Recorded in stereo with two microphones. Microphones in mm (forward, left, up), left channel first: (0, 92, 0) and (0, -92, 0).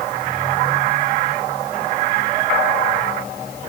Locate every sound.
Only background noise.